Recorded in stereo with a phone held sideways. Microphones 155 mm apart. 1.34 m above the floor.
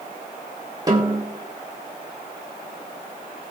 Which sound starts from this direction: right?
A snare drum, at 0.9 s.